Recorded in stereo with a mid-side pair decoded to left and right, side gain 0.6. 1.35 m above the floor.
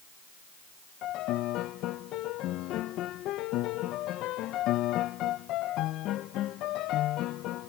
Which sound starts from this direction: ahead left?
A piano, at 1.0 s.